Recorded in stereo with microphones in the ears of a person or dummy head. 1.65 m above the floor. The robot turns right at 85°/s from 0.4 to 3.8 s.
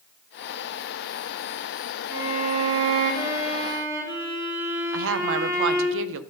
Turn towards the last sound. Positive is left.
turn(degrees=-70)  # may be behind; listen again after turning